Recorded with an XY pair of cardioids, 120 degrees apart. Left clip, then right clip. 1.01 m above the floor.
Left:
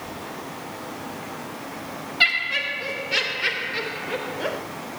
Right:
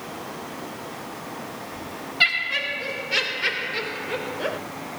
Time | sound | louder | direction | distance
2.2 | laughter | left 1 dB | straight ahead | 2.5 m